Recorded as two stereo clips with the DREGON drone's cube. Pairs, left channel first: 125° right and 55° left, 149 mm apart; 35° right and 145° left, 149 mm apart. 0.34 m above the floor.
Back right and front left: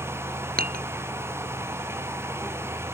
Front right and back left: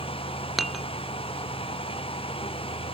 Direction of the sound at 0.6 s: 55° left.